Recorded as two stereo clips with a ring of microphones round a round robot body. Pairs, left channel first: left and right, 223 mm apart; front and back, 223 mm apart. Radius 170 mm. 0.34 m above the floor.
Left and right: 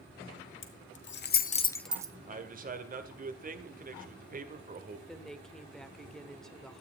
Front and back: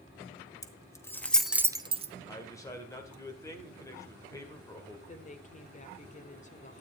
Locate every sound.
0.6 s keys jangling: 75° left, 1.8 m; by 2.1 s 140° right, 0.9 m
2.3 s a man speaking: 70° right, 1.9 m
5.1 s a woman speaking: 5° left, 1.3 m